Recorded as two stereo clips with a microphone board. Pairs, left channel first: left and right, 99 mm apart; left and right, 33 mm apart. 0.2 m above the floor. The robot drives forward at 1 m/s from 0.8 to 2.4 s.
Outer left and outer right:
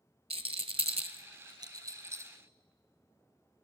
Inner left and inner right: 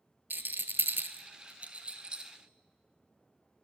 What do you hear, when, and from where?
0.3 s a rattle: 80° right, 0.7 m; by 2.3 s 25° right (ahead or behind), 1.6 m